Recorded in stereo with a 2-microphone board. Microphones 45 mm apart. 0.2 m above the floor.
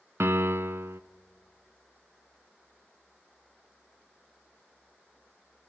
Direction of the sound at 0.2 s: 65° right (ahead or behind).